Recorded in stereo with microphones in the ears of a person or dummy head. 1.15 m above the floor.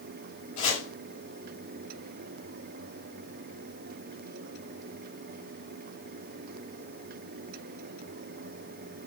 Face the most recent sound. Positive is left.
turn(degrees=45)  # may be behind; listen again after turning